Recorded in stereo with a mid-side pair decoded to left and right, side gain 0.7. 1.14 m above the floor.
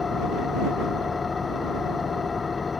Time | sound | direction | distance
0.0 | an engine running | 20° left | ?